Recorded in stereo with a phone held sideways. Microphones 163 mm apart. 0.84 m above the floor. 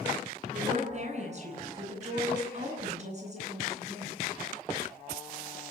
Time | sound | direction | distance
0.5 | a woman speaking | 45° right (ahead or behind) | 10 m